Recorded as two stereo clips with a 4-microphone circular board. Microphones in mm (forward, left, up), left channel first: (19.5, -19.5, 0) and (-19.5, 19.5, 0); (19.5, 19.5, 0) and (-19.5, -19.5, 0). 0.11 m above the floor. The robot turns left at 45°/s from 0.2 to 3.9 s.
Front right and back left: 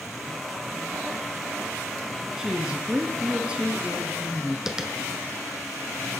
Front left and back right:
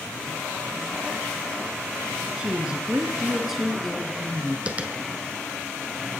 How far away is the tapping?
About 0.8 m.